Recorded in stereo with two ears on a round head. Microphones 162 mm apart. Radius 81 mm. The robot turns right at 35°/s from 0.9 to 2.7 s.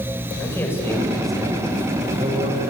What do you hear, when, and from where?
0.4 s a man speaking: 165° left, 8 m; by 2.7 s 130° right, 8 m